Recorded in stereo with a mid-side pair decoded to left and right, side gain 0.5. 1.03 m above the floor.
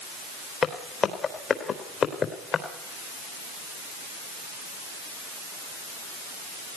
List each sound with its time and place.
0.6 s footsteps: 45° left, 3.5 m